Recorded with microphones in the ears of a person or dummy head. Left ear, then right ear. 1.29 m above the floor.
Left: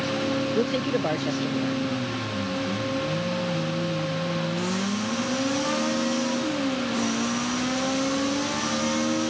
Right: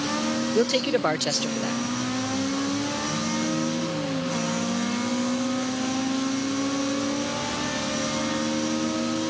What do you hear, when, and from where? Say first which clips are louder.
0.6 s a man speaking: right 3 dB; 45° right (ahead or behind)